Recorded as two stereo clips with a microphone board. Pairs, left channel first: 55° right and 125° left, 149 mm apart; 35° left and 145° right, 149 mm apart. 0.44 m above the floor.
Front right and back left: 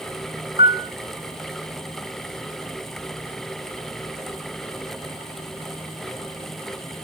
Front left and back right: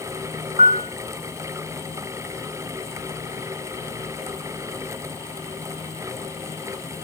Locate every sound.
0.6 s a piano: 165° left, 5.5 m